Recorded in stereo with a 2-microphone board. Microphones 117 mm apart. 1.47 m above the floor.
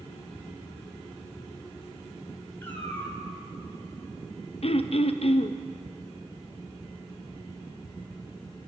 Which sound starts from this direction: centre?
A cat meowing, at 2.6 s.